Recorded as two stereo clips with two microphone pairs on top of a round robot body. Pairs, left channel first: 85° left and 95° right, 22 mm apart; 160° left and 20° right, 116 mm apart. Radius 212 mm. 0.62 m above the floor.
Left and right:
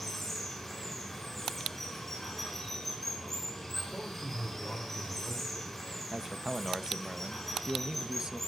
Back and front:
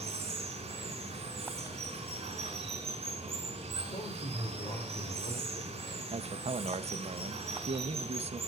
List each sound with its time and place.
0.0 s running water: 10° left, 5 m
3.9 s a man speaking: 135° left, 2.5 m
6.1 s a man speaking: 30° right, 0.9 m